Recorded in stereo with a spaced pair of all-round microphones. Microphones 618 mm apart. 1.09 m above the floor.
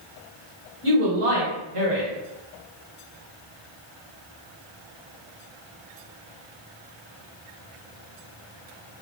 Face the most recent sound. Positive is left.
turn(degrees=-55)  # may be behind; listen again after turning